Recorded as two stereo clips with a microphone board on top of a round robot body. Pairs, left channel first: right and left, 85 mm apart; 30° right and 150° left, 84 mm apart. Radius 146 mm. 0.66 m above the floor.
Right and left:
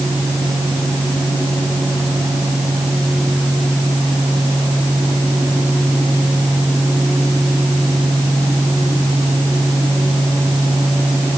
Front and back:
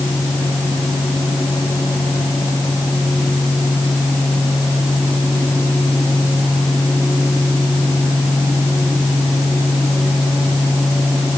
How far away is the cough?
I don't hear a cough.